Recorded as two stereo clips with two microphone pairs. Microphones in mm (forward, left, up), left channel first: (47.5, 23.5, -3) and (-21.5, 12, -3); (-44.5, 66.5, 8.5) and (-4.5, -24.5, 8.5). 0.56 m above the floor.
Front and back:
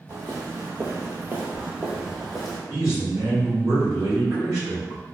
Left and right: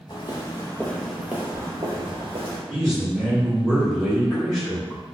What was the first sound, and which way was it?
Footsteps, 140° left.